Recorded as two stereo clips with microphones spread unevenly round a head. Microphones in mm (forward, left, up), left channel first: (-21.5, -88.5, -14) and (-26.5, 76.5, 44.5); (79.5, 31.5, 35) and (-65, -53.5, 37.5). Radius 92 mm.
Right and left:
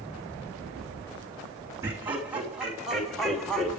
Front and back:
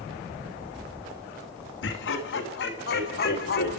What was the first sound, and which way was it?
Laughter, 15° left.